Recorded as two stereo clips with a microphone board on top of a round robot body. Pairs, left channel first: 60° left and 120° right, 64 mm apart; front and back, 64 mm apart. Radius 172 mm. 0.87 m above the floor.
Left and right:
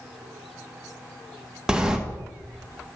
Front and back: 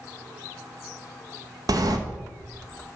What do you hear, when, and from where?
1.7 s a sliding door: 160° left, 1.3 m